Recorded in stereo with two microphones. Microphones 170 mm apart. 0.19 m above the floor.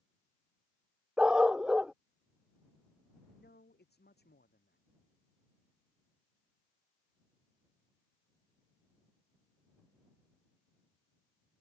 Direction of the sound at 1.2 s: 5° right (ahead or behind).